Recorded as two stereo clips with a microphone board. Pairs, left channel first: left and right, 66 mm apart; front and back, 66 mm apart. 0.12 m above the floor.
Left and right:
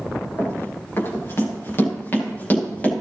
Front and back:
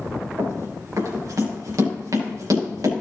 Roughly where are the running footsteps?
Behind left.